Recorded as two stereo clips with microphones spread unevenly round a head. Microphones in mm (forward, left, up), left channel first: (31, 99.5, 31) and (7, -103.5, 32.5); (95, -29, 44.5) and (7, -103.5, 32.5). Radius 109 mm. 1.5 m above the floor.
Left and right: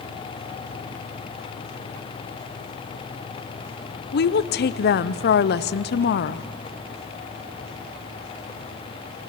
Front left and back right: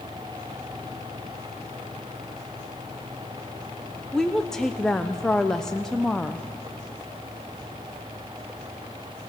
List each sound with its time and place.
4.1 s a woman speaking: 130° left, 0.7 m